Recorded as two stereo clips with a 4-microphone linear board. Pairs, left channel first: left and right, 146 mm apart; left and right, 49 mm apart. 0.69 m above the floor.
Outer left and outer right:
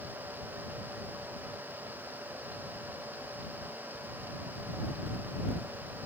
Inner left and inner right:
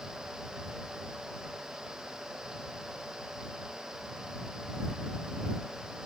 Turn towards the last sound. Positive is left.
No sound to turn to.